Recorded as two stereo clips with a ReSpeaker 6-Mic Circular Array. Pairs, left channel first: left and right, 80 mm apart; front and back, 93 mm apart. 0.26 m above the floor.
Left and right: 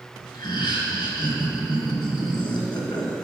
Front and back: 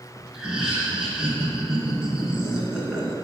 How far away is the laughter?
About 2.5 m.